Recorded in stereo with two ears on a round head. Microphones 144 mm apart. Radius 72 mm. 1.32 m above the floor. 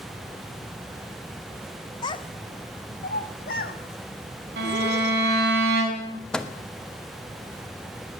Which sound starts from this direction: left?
A child speaking, at 2.0 s.